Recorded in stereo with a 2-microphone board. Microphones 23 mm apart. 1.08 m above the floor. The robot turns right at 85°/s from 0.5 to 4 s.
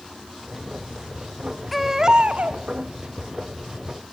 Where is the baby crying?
Straight behind, 1.2 m; by 2.6 s 105° right, 1.2 m.